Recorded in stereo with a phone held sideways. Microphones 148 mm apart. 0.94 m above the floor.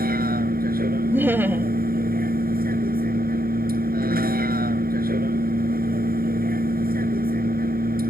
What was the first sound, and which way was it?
A vehicle, 85° right.